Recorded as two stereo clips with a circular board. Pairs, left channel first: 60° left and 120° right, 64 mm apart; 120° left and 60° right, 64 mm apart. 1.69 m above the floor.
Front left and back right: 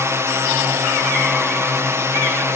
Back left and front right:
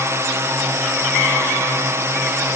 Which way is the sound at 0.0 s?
90° right.